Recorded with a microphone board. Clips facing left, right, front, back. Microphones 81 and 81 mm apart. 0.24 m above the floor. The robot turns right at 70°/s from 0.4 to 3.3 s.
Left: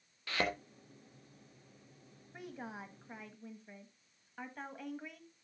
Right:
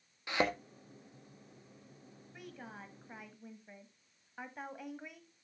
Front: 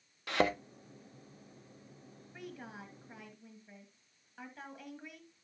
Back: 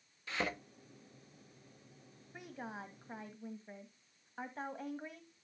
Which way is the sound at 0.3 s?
20° right.